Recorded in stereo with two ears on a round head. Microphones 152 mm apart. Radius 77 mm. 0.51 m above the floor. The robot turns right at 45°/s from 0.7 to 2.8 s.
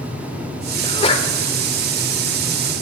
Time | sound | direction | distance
0.8 | a sneeze | 25° left (ahead or behind) | 1.6 m